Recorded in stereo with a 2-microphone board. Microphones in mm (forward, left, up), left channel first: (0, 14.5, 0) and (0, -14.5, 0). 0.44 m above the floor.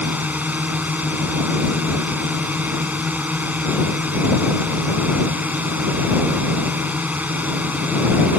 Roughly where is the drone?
Right.